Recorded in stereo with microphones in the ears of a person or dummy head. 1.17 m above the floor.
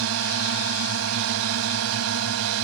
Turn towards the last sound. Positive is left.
turn(degrees=-80)